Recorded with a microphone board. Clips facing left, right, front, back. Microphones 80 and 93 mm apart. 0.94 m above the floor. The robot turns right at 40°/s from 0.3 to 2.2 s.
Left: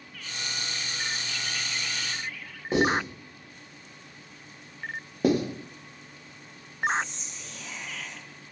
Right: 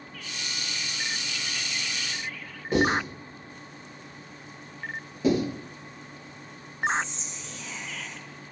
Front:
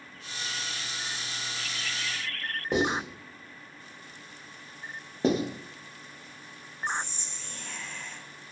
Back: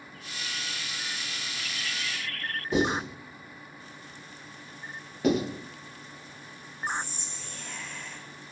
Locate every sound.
2.7 s writing: 25° left, 1.3 m
5.2 s writing: 60° left, 0.6 m
6.9 s whispering: 100° left, 0.7 m